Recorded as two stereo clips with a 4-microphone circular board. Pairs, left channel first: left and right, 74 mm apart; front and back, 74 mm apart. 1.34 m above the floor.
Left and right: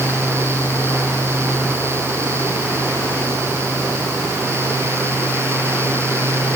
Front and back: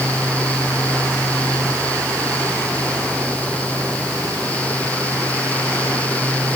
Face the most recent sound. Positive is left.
No sound to turn to.